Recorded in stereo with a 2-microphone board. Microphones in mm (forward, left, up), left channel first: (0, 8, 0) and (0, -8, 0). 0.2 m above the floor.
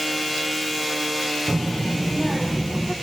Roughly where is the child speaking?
Left.